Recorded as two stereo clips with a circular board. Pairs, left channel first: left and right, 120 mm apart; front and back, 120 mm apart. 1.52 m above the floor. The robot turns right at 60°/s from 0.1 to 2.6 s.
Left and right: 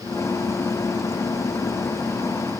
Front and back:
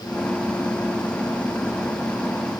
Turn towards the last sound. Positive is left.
No sound to turn to.